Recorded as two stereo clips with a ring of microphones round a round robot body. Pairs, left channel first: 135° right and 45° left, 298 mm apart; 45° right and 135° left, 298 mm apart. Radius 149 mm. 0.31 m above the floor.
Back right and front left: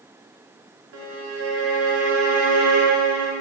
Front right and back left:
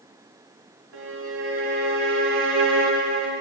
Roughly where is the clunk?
No clunk in this recording.